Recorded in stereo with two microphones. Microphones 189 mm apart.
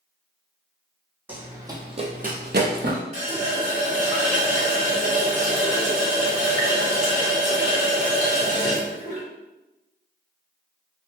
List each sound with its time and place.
1.3 s running footsteps: 10° right (ahead or behind), 1.1 m; by 3.0 s 60° right (ahead or behind), 0.8 m
3.1 s a running tap: 45° right (ahead or behind), 1.5 m